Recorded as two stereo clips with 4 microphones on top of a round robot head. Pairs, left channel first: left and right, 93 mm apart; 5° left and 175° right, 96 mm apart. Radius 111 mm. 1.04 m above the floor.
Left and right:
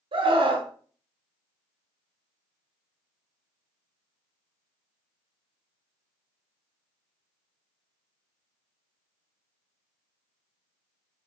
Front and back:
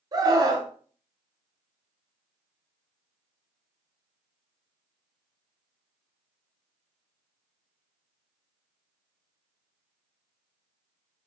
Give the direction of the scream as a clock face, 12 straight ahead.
4 o'clock.